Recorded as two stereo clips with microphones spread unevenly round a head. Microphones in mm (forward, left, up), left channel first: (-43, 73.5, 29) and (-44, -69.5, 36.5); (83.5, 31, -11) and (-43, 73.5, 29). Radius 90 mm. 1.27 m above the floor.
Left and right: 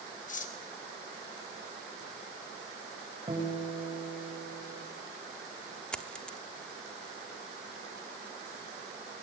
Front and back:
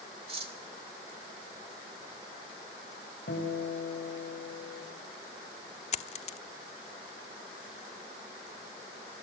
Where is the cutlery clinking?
120° left, 3.5 m.